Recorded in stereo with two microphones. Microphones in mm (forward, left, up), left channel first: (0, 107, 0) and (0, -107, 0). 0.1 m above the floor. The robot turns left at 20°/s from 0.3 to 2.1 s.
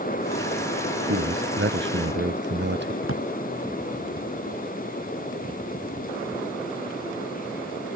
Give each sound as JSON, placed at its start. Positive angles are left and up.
{"t": 1.1, "sound": "a man speaking", "side_deg": -75}
{"t": 3.0, "sound": "a drawer", "side_deg": 75}